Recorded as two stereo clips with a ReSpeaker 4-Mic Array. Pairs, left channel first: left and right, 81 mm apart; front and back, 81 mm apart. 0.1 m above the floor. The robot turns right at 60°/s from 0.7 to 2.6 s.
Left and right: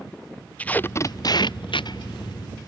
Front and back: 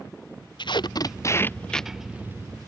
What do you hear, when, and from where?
0.6 s tape being pulled: 15° left; by 2.7 s 130° left